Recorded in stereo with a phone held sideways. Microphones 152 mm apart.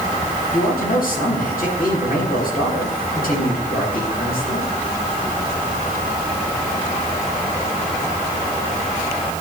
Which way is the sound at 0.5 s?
75° left (ahead or behind).